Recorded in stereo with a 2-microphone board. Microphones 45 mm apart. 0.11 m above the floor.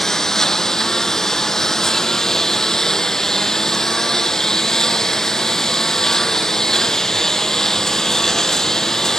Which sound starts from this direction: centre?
A lawn mower, at 0.0 s.